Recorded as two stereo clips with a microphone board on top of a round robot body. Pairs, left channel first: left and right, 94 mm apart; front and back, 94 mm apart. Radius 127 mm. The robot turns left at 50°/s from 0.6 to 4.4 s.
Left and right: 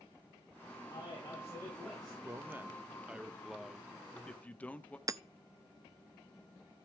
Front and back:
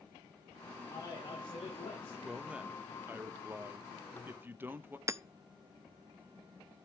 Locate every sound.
0.9 s a man speaking: 60° left, 5 m; by 2.1 s 5° right, 5 m
2.2 s a man speaking: 105° right, 1.1 m; by 5.0 s 145° left, 1.1 m
5.1 s hammering: 130° right, 0.6 m